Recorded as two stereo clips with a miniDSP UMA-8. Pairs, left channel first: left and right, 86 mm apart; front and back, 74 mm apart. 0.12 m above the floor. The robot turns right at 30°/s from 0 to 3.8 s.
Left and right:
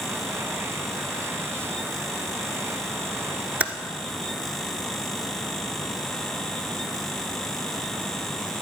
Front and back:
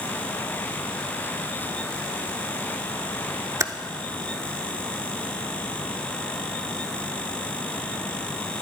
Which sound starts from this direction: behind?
Typing on a keyboard, at 3.6 s.